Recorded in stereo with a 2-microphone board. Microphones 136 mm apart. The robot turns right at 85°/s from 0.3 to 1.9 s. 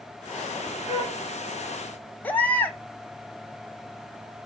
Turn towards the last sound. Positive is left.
turn(degrees=15)  # may be behind; listen again after turning